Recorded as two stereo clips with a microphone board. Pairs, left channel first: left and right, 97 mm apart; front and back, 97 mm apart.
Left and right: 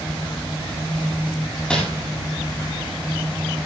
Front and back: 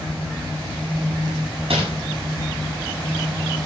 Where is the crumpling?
170° left, 7 m.